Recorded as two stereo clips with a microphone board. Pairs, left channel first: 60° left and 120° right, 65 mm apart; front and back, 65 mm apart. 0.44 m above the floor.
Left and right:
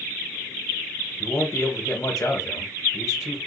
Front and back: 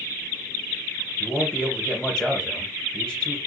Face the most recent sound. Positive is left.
turn(degrees=75)